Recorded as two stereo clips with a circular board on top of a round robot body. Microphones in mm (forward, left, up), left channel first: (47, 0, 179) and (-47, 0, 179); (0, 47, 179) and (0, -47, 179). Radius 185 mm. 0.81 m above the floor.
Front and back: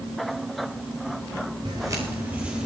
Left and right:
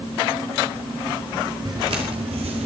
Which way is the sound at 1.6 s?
140° right.